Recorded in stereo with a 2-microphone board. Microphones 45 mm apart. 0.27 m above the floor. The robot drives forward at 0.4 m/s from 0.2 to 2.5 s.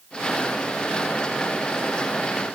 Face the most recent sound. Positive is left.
No sound to turn to.